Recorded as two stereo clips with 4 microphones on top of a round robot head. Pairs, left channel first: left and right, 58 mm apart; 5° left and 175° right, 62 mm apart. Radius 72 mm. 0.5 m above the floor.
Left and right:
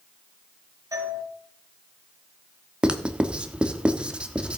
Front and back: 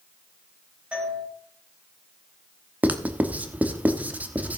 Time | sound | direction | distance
0.9 | a doorbell | 105° right | 4 m
2.8 | writing | 145° right | 1.1 m